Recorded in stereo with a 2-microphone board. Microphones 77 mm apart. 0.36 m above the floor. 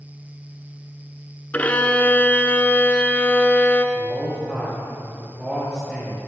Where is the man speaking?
5° right (ahead or behind), 6.5 m.